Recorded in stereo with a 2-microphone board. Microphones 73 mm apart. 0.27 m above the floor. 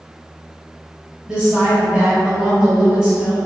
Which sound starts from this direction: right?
A woman speaking, at 1.3 s.